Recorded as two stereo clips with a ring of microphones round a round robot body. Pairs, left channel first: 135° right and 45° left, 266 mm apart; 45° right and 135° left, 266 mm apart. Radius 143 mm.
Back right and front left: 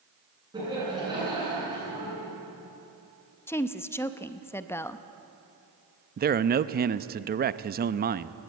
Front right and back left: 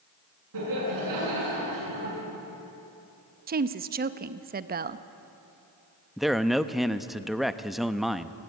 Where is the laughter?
120° left, 7.5 m.